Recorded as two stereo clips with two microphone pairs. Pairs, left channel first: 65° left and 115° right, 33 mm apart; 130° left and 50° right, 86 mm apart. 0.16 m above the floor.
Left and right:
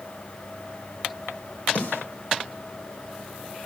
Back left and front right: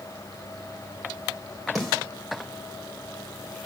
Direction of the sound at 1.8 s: 40° left.